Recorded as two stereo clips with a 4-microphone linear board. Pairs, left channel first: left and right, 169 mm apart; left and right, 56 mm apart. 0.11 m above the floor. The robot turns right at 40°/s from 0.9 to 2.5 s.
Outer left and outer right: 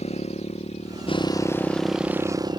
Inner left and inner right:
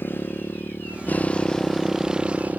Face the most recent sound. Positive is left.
turn(degrees=-155)